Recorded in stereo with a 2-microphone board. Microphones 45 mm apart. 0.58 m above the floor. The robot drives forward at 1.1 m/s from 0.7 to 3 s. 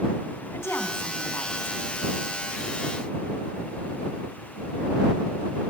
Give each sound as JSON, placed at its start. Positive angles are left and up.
{"t": 0.5, "sound": "a woman speaking", "side_deg": 80, "distance_m": 4.5}